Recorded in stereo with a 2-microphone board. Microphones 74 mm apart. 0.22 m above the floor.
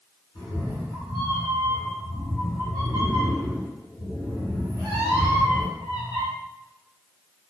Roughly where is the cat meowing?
Left.